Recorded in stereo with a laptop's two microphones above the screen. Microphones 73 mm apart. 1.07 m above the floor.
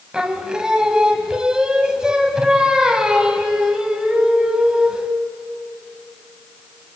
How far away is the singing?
About 1.0 m.